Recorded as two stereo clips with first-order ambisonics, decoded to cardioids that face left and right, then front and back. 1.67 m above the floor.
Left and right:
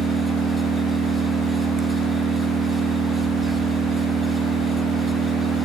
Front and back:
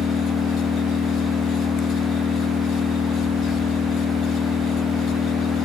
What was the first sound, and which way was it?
An engine running, 40° right.